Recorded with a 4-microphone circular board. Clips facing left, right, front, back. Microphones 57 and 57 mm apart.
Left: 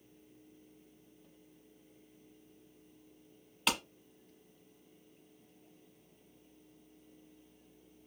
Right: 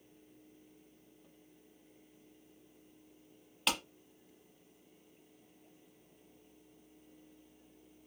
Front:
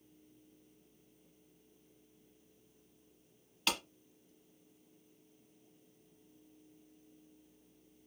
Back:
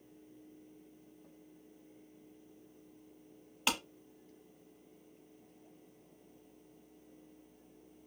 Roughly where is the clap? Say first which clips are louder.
Left 1 dB, back 2 dB; behind.